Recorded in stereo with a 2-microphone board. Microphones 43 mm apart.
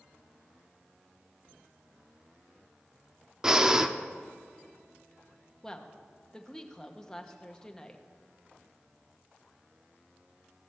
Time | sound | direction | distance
3.4 | breathing | 15° right (ahead or behind) | 0.5 m
5.6 | a woman speaking | 15° left (ahead or behind) | 0.9 m